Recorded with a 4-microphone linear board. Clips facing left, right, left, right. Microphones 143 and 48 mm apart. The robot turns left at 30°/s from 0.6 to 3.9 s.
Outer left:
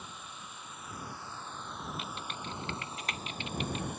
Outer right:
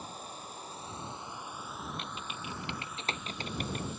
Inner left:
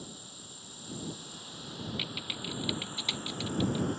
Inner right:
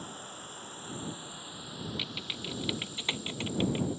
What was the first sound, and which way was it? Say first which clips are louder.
An insect: outer right 4 dB, inner right 5 dB; 140° right.